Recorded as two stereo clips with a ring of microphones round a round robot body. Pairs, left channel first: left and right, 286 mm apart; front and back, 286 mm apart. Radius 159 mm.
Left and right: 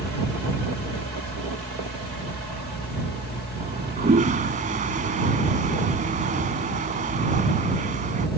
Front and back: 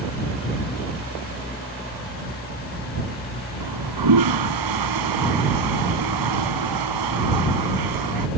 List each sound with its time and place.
3.6 s a toilet flushing: 160° right